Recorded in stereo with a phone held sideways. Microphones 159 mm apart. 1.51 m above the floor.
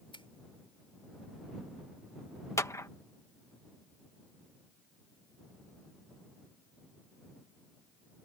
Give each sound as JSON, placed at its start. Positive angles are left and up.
{"t": 0.1, "sound": "a finger snap", "side_deg": 35}
{"t": 2.6, "sound": "a clap", "side_deg": 20}